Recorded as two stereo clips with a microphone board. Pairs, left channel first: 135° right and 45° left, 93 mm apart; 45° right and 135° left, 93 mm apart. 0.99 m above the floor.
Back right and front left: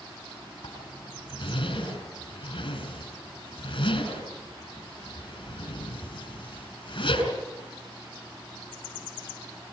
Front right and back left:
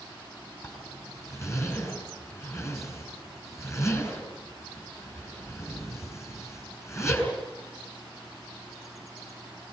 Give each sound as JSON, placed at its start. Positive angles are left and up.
{"t": 0.6, "sound": "a zipper", "azimuth_deg": -105, "distance_m": 6.0}